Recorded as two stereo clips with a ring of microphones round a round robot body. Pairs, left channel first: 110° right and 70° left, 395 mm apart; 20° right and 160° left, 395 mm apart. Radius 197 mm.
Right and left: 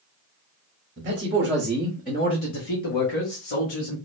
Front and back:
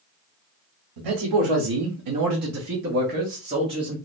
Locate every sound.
1.0 s a man speaking: 135° left, 1.2 m; by 4.0 s 125° right, 1.6 m